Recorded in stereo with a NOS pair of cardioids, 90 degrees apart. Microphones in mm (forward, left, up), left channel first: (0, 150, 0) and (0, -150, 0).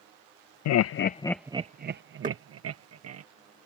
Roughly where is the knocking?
Ahead right.